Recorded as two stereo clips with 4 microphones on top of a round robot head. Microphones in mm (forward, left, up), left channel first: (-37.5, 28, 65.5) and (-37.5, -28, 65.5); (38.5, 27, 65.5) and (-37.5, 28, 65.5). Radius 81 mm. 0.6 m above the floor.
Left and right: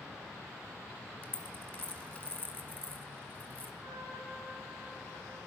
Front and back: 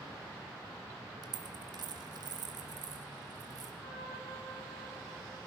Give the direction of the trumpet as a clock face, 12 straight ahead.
12 o'clock.